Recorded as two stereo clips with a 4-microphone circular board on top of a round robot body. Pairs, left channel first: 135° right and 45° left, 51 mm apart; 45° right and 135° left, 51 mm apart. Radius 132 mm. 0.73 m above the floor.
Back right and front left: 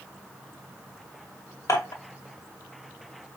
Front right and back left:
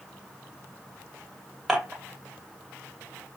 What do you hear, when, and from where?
1.7 s dishes clattering: 140° right, 2 m